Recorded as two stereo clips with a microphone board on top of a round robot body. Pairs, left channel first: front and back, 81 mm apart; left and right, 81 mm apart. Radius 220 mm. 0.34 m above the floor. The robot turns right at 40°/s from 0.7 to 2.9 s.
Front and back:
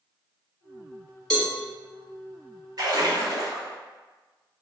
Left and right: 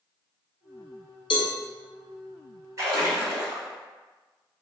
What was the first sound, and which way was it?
A cowbell, 85° left.